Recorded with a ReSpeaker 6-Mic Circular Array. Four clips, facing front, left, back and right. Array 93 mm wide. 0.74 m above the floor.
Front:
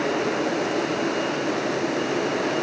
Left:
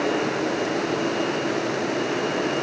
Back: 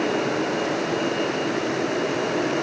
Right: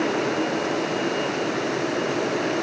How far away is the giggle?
I don't hear a giggle.